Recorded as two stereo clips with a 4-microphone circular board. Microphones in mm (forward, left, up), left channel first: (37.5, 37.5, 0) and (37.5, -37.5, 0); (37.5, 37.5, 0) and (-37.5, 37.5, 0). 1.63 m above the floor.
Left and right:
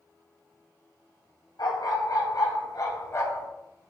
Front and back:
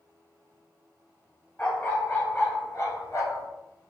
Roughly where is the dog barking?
Ahead left.